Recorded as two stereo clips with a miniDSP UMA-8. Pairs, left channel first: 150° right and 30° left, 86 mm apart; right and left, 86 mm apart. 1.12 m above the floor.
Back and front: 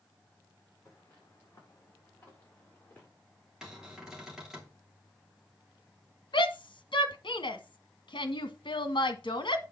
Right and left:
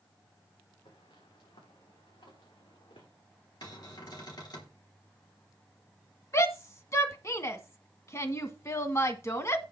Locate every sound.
0.8 s footsteps: 90° right, 5.5 m; by 3.1 s 80° right, 7.5 m
3.6 s a cupboard door: 55° right, 3 m
6.3 s a shout: 140° right, 1.4 m